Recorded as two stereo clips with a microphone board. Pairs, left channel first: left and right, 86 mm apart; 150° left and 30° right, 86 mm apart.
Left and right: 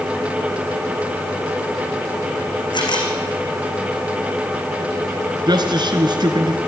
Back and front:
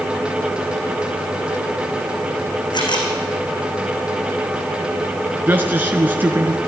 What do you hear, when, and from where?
2.7 s a camera shutter: 120° left, 5 m
5.5 s a man speaking: 95° right, 2.5 m